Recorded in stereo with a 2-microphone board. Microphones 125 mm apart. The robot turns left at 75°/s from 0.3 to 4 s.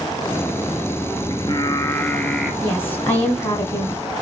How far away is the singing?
About 0.7 m.